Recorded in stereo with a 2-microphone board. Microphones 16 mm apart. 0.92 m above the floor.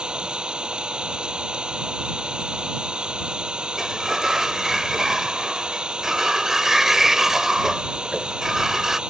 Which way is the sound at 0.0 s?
75° right (ahead or behind).